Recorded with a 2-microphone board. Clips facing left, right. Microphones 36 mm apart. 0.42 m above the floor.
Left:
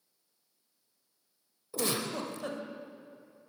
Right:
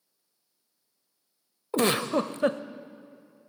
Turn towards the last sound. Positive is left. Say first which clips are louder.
# right 9 dB
turn(degrees=-55)  # may be behind; listen again after turning